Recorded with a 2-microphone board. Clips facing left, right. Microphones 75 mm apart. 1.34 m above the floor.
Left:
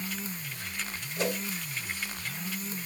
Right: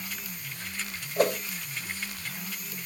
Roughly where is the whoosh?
Right.